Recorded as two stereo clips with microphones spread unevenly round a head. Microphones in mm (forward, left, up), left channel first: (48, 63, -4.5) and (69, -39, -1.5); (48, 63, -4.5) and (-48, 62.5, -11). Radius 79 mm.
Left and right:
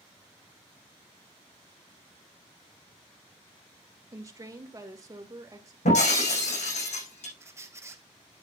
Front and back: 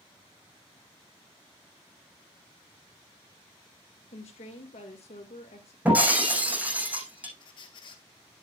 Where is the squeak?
20° right, 1.3 m.